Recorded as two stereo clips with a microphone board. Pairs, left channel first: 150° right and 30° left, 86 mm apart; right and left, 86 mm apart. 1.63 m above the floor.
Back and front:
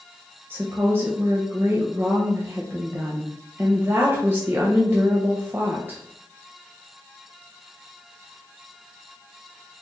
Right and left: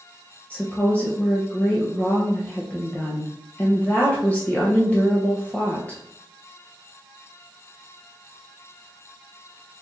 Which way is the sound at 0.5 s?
25° right.